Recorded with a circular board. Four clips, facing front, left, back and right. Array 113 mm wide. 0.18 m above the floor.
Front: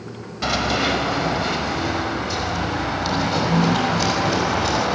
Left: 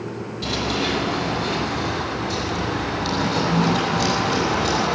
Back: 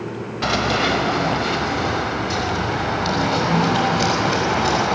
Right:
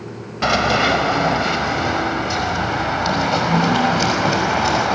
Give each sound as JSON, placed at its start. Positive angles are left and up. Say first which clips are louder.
{"t": 0.4, "sound": "running footsteps", "louder": "right 8 dB, back 1 dB", "azimuth_deg": -110, "distance_m": 3.0}